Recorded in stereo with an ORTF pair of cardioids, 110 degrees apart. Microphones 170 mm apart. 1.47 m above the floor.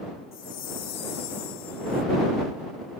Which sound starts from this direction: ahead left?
A chime, at 0.3 s.